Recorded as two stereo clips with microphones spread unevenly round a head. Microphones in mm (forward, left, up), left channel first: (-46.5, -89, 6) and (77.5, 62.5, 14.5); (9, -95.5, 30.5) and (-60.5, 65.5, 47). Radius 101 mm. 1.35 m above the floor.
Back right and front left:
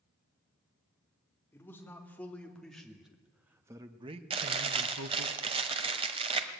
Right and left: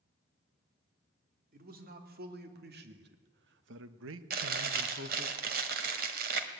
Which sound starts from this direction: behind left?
A man speaking, at 1.5 s.